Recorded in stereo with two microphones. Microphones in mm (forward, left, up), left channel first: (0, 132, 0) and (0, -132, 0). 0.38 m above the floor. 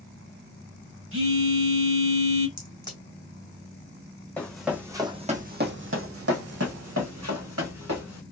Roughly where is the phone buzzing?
Right.